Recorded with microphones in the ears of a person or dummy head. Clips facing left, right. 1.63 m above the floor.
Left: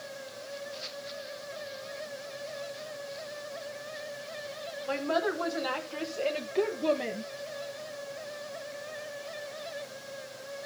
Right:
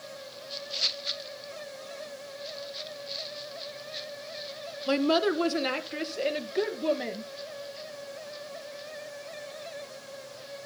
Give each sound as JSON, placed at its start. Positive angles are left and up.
{"t": 4.9, "sound": "a woman speaking", "side_deg": -50, "distance_m": 1.2}